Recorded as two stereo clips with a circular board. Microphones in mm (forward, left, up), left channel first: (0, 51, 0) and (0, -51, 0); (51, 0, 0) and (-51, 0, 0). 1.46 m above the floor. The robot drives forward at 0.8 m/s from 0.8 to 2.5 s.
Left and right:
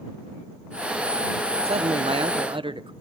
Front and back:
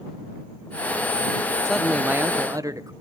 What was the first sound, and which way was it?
A man speaking, 80° right.